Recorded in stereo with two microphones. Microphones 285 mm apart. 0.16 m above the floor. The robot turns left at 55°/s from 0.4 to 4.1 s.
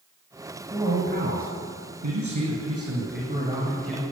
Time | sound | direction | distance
0.7 | a man speaking | 10° right | 7.5 m